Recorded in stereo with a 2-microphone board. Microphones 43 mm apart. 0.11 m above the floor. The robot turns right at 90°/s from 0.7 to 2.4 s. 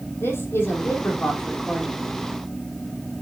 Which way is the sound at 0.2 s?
95° left.